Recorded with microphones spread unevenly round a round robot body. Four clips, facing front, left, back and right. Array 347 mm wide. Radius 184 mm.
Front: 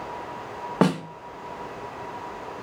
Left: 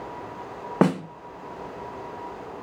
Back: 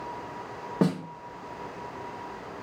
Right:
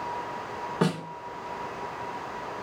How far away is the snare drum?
About 1.4 m.